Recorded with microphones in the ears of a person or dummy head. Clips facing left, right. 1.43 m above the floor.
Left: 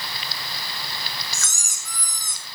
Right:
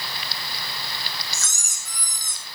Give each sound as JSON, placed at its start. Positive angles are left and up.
{"t": 1.3, "sound": "a squeak", "side_deg": 65, "distance_m": 2.5}